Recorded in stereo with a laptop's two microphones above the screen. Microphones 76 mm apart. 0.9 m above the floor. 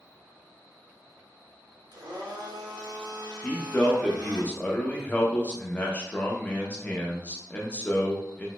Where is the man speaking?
20° left (ahead or behind), 0.5 m.